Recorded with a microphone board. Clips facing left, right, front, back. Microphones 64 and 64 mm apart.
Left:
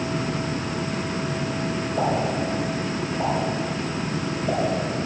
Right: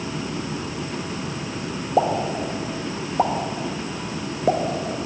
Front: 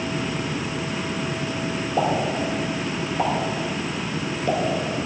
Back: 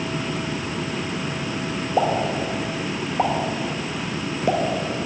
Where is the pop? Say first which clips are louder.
Right 4 dB, back 2 dB; 105° right, 1.0 m.